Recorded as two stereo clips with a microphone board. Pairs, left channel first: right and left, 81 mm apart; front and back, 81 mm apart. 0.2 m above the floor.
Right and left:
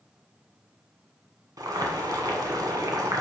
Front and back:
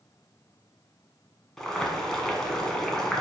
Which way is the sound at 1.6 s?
80° left.